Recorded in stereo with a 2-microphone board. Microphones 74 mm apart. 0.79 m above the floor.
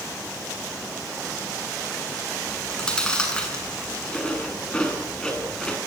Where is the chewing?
10° left (ahead or behind), 8 m.